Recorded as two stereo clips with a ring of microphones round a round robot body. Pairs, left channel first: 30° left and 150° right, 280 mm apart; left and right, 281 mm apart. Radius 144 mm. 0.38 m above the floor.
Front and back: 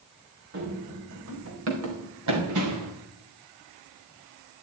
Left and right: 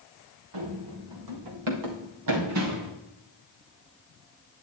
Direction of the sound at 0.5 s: 95° right.